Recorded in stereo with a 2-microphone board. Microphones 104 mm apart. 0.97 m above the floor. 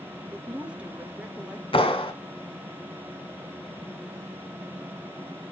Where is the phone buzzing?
No phone buzzing in this recording.